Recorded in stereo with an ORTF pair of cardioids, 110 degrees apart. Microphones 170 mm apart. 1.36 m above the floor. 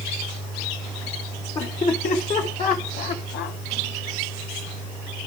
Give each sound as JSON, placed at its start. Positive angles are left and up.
{"t": 1.6, "sound": "laughter", "azimuth_deg": 35, "distance_m": 1.6}